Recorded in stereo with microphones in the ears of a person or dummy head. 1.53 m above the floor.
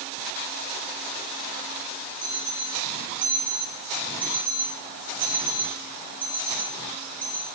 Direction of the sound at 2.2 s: 15° left (ahead or behind).